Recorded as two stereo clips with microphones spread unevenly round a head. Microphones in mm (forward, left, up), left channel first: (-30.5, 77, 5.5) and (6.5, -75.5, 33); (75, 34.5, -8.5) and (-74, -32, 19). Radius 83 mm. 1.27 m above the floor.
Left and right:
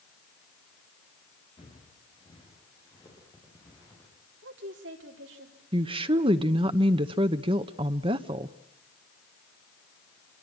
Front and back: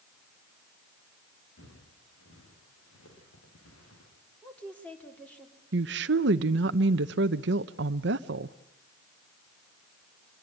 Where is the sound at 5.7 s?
135° right, 0.8 m.